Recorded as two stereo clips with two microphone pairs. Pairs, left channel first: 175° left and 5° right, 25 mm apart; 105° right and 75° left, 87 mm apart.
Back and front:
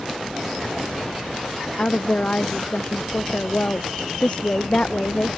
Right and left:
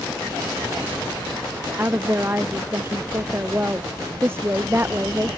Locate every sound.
1.8 s a woman speaking: 135° left